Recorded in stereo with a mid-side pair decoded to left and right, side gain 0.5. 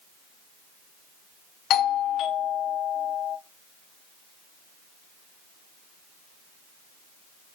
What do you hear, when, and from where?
1.7 s a doorbell: 65° left, 1.0 m